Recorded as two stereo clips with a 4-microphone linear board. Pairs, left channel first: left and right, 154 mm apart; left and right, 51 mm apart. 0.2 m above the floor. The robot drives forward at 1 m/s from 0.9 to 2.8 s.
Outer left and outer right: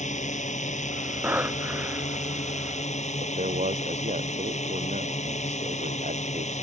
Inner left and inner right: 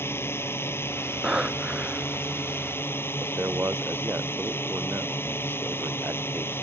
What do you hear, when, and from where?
0.0 s a drone: 50° left (ahead or behind)
1.2 s breathing: 10° right (ahead or behind)
3.2 s a man speaking: 50° right (ahead or behind)